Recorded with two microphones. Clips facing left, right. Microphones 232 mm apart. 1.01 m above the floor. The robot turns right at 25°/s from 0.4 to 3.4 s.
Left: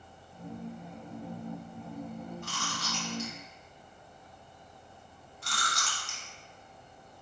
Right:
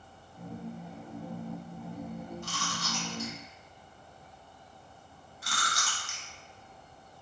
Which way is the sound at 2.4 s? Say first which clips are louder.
Right 1 dB; 60° left (ahead or behind).